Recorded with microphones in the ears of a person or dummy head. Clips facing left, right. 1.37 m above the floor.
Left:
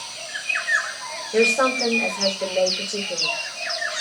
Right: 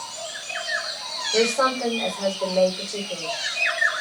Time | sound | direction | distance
1.3 | a woman speaking | 20° left (ahead or behind) | 1.2 m